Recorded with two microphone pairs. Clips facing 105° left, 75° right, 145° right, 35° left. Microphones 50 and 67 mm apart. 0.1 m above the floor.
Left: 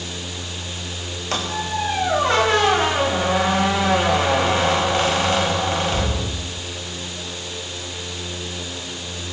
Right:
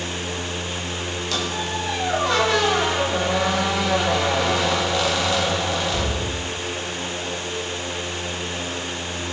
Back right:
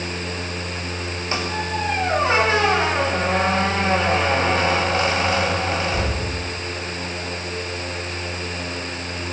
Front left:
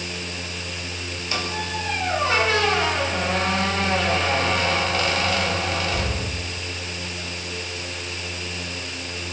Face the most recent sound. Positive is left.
turn(degrees=155)